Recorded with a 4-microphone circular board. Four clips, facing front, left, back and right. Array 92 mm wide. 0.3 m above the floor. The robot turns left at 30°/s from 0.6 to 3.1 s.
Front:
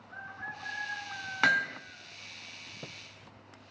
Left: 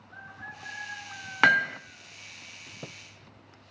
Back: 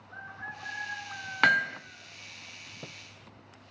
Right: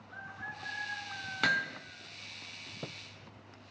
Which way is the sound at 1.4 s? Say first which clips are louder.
Left 9 dB, back 3 dB; 110° left.